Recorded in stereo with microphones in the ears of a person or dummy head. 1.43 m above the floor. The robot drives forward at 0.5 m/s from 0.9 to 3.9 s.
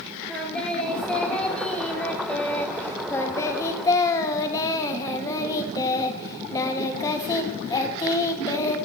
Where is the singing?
10° left (ahead or behind), 2.5 m; by 8.8 s 25° left (ahead or behind), 1.1 m.